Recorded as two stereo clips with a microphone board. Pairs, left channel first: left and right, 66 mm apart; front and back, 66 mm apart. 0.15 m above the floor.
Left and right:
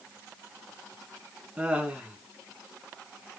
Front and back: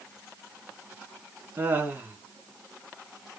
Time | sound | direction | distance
1.6 | laughter | 150° right | 1.3 m